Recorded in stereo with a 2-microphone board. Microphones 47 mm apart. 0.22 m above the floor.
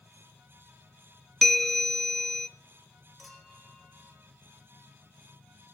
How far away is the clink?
About 3.5 m.